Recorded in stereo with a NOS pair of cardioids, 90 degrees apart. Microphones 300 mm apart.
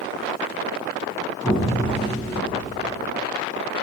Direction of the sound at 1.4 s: 10° left.